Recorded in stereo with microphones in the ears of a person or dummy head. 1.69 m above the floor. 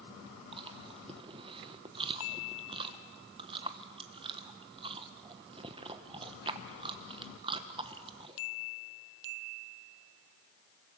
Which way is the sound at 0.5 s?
25° right (ahead or behind).